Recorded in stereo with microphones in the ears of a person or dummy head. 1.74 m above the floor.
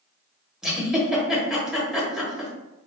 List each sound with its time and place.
0.6 s a giggle: centre (ahead or behind), 0.9 m